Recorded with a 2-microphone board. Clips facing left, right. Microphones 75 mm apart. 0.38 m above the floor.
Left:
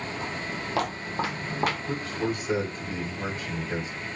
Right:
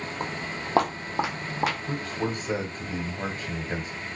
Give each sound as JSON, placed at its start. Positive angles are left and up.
{"t": 0.2, "sound": "footsteps", "side_deg": -55, "distance_m": 0.8}
{"t": 1.9, "sound": "a man speaking", "side_deg": -40, "distance_m": 1.1}